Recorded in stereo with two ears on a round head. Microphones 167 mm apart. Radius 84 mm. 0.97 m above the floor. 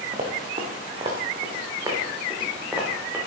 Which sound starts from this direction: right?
Running footsteps, at 0.1 s.